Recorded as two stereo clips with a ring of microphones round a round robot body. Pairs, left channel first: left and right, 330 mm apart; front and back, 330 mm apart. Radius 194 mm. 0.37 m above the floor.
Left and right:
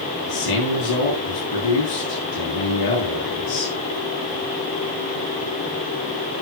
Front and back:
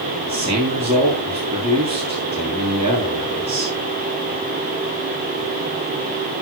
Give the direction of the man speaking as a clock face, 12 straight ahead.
8 o'clock.